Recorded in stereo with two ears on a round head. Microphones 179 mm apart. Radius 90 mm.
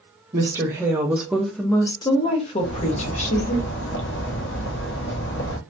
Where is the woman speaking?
25° right (ahead or behind), 0.9 m; by 3.6 s 35° left (ahead or behind), 1.2 m.